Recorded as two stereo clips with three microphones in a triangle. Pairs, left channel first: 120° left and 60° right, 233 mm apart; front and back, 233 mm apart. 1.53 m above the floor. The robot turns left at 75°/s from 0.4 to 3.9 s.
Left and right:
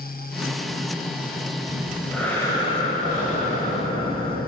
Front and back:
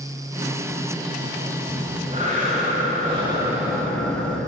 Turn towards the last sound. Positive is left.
turn(degrees=75)